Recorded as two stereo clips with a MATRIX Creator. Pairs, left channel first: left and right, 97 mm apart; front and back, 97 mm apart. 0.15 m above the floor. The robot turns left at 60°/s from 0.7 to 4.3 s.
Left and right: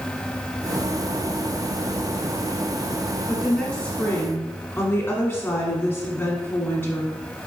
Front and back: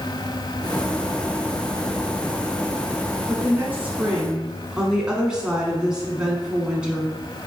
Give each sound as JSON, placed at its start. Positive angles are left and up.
{"t": 3.3, "sound": "a woman speaking", "azimuth_deg": 175, "distance_m": 1.1}